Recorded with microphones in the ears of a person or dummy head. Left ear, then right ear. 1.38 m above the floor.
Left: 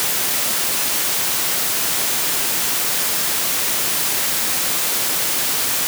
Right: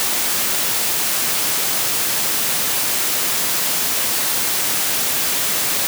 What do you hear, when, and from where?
Only background noise.